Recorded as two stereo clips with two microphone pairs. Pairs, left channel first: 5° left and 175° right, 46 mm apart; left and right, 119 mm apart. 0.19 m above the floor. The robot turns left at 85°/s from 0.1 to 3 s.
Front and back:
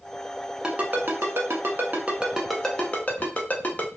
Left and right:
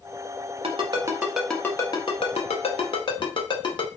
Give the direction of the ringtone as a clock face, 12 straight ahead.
4 o'clock.